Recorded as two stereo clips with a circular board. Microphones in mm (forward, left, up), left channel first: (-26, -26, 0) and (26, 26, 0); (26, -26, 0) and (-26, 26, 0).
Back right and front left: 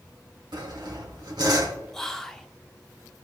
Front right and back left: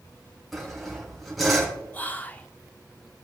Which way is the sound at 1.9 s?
60° right.